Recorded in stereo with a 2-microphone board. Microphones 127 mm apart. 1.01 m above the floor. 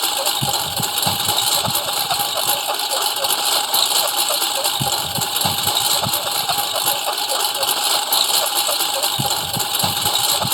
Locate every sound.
0.0 s a lawn mower: centre (ahead or behind)